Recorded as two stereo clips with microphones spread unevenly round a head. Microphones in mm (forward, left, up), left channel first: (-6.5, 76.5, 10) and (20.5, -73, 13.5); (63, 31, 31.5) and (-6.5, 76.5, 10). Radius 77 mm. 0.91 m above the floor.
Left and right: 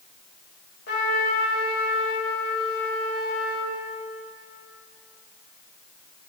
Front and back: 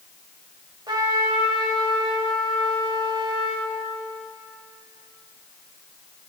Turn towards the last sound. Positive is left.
turn(degrees=120)